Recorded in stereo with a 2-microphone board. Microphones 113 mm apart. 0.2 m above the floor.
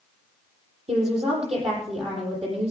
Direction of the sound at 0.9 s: 65° right (ahead or behind).